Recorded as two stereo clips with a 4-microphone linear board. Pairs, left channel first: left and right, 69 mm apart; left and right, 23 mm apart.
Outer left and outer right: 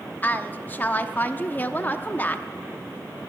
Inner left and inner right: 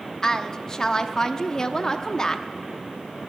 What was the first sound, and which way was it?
A woman speaking, 25° left (ahead or behind).